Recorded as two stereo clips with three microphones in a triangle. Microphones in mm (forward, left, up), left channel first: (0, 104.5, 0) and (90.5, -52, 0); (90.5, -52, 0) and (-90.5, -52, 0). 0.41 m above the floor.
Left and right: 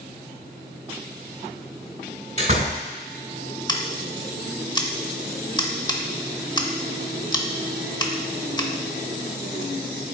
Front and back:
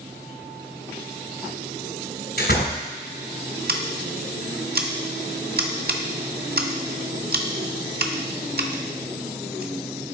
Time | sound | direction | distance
2.4 | a door slam | 10° right | 2 m
3.7 | scissors | straight behind | 0.7 m